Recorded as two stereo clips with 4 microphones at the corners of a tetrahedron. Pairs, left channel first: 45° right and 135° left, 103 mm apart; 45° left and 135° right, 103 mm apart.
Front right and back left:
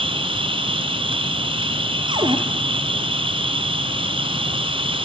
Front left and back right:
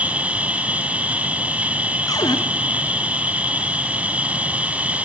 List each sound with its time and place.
0.0 s an insect: 150° left, 1.5 m
2.1 s a cupboard door: 95° left, 1.8 m